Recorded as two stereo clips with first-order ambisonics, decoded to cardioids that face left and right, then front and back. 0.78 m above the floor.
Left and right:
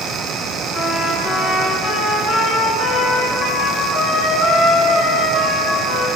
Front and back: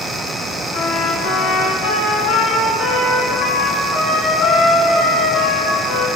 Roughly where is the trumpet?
Ahead left.